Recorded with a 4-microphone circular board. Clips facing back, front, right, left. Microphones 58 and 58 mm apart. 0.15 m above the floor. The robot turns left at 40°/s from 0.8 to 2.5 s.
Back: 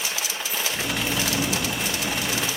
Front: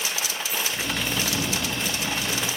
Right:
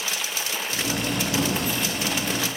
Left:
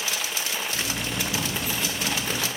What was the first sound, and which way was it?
Only background noise.